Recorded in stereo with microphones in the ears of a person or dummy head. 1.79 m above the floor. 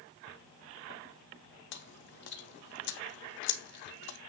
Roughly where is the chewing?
Left.